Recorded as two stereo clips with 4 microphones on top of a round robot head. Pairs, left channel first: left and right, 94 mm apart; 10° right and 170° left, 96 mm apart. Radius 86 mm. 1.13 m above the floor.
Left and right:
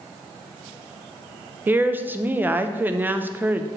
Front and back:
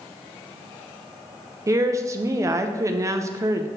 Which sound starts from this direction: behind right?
A woman speaking, at 1.7 s.